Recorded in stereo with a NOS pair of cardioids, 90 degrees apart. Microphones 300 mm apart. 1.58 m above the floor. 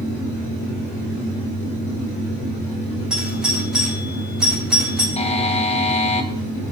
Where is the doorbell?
5° right, 3 m.